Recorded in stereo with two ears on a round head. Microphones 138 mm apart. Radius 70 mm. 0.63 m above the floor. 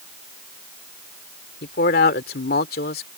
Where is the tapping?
No tapping in this recording.